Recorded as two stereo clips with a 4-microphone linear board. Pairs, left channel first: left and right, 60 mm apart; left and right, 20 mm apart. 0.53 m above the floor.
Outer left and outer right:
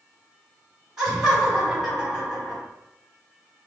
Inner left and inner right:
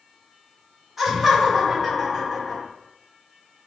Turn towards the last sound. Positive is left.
turn(degrees=-5)  # may be behind; listen again after turning